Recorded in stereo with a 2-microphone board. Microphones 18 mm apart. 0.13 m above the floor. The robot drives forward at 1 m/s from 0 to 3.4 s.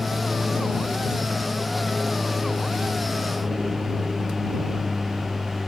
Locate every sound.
0.0 s an aircraft: 70° right (ahead or behind)